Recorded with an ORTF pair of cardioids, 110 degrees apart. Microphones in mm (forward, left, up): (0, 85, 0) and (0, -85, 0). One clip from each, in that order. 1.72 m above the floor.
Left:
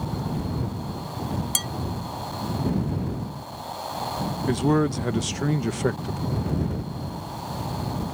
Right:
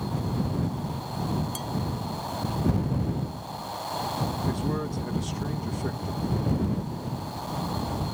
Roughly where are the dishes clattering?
Left.